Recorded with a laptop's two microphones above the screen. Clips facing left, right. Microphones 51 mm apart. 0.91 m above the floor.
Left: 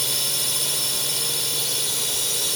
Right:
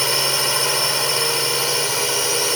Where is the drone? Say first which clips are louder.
Right 9 dB; 55° right (ahead or behind).